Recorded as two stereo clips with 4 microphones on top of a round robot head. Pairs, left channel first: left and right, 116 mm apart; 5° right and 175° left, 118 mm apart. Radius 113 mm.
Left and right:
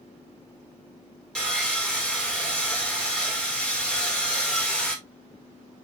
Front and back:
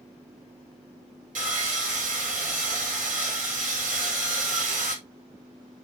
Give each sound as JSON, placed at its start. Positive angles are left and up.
{"t": 1.4, "sound": "sawing", "azimuth_deg": 175, "distance_m": 5.0}